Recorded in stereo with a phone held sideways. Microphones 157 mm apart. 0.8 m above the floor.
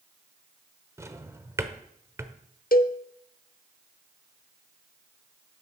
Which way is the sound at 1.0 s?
15° right (ahead or behind).